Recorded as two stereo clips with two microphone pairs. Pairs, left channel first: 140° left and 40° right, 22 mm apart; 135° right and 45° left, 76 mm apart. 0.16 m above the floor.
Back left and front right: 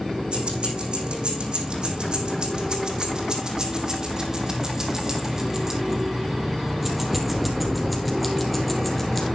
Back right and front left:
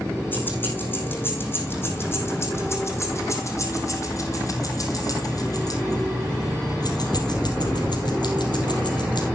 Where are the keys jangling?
70° right, 5 m; by 9.3 s 135° right, 3.5 m.